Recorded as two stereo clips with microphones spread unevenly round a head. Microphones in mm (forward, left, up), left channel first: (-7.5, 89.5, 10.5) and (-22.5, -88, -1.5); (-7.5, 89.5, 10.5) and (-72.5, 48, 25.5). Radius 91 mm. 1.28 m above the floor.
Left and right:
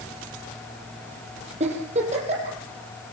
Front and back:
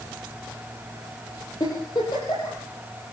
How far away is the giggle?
About 5.5 m.